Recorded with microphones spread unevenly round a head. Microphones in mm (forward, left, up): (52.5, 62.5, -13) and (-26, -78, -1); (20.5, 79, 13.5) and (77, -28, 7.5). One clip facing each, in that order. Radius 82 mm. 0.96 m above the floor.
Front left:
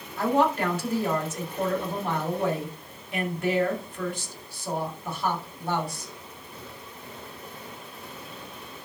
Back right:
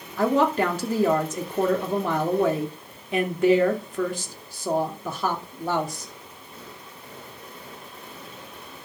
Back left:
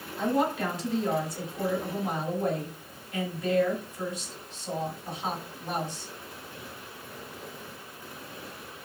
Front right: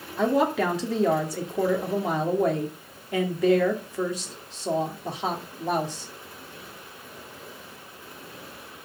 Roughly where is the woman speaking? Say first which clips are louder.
Back right 2 dB, front right 4 dB; right.